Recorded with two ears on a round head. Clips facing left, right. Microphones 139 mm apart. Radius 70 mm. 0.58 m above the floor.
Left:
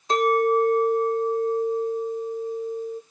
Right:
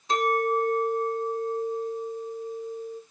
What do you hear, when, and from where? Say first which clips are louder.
0.1 s a clink: left 5 dB; 40° left (ahead or behind), 1.7 m